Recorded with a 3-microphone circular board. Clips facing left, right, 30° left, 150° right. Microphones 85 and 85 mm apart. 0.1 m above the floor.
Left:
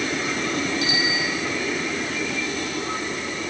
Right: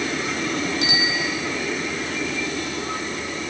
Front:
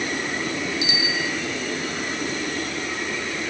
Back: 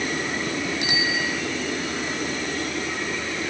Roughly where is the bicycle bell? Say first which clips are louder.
Even, back 1 dB; behind right.